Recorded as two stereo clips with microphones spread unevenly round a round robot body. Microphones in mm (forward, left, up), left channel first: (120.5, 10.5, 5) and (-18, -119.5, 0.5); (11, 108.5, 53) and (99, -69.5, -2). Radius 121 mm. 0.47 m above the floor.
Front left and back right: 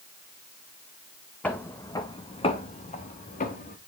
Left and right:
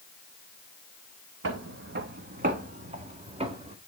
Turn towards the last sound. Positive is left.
turn(degrees=0)